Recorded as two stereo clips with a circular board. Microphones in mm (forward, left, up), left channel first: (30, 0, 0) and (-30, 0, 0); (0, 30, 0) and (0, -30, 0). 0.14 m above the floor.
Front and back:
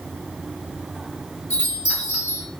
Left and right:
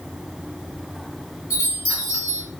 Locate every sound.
1.5 s a chime: 120° right, 1.7 m